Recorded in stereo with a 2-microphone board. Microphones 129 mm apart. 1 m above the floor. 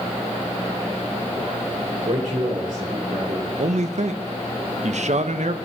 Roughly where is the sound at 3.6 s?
Right.